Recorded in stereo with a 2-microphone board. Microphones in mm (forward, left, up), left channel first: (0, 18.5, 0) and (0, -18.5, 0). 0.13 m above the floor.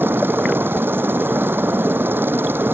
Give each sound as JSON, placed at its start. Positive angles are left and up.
{"t": 0.0, "sound": "a helicopter", "side_deg": -75}